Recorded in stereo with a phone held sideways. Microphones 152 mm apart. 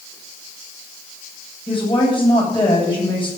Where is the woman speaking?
35° left (ahead or behind), 8.5 m.